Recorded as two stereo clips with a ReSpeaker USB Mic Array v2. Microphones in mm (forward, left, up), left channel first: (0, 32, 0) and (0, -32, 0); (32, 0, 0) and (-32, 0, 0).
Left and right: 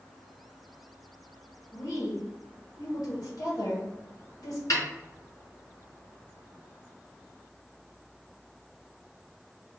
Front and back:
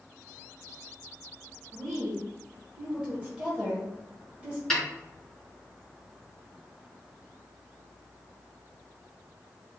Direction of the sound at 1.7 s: 70° left.